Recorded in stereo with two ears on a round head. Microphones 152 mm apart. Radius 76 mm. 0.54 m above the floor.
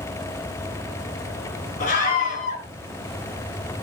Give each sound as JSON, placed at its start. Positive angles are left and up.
{"t": 1.8, "sound": "a scream", "side_deg": 50, "distance_m": 6.0}